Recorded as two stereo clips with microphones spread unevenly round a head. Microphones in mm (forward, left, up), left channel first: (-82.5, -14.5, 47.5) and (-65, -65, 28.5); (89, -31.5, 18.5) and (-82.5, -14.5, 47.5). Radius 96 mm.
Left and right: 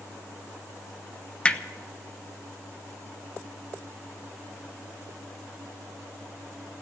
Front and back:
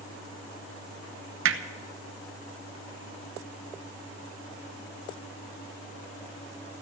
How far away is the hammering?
About 1.1 m.